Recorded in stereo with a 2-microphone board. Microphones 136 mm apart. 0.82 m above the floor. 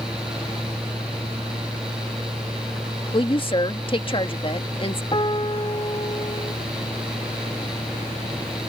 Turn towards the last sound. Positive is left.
turn(degrees=35)  # may be behind; listen again after turning